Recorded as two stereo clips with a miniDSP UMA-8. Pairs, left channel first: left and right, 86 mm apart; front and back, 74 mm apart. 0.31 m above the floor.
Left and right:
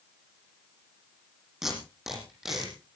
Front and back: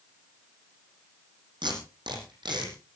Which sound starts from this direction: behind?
Tape being pulled, at 1.6 s.